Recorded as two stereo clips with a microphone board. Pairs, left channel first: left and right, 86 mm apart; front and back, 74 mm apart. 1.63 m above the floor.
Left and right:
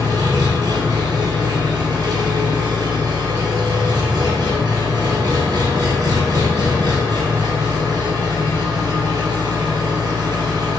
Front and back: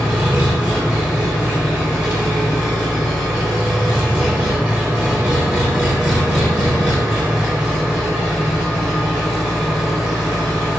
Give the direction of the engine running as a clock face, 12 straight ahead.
3 o'clock.